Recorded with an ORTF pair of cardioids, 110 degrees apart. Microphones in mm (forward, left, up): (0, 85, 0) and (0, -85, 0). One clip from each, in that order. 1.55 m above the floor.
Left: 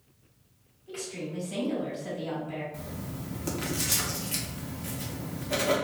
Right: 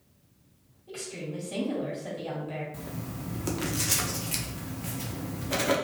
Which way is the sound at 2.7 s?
15° right.